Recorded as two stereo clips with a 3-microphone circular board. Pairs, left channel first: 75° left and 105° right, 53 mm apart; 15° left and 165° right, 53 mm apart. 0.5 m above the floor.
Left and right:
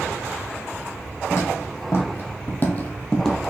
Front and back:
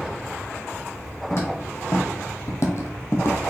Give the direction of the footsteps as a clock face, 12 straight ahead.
10 o'clock.